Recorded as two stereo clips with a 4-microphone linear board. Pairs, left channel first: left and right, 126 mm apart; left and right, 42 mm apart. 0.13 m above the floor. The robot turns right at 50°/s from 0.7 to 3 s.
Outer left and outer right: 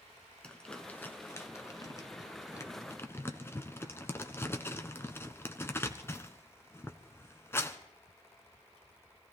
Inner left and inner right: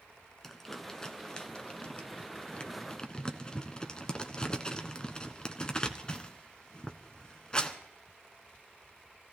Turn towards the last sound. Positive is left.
turn(degrees=20)  # may be behind; listen again after turning